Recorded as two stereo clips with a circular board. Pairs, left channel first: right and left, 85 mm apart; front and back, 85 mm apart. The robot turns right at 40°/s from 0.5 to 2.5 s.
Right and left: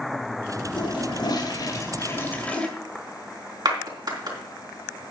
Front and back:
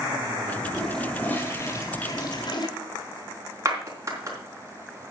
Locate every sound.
0.8 s a toilet flushing: 85° right, 2 m; by 2.7 s 20° right, 2 m
3.6 s a clap: 130° left, 3.5 m